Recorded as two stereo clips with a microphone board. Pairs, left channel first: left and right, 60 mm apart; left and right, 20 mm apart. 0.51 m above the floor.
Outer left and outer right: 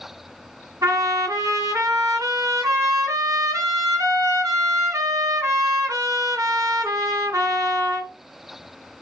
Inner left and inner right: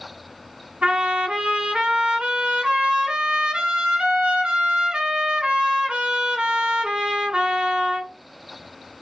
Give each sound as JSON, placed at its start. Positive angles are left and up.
{"t": 0.8, "sound": "a trumpet", "side_deg": -80, "distance_m": 2.5}